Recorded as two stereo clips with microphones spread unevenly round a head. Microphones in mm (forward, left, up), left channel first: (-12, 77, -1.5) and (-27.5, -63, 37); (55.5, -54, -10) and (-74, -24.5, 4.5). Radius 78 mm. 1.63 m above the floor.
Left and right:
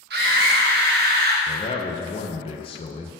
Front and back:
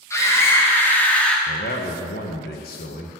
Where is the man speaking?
25° left, 1.4 m.